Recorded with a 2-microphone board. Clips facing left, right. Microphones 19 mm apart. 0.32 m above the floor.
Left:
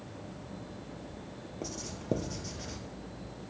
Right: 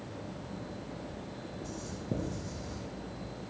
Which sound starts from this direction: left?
Writing, at 1.6 s.